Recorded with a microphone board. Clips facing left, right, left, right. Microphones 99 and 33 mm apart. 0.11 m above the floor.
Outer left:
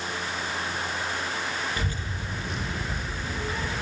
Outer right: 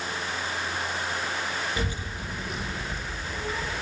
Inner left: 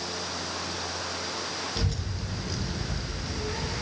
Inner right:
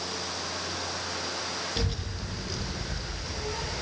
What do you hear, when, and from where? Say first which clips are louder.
1.8 s a child speaking: outer right 1 dB, even; 25° right (ahead or behind), 1.1 m; by 3.8 s 25° left (ahead or behind), 1.4 m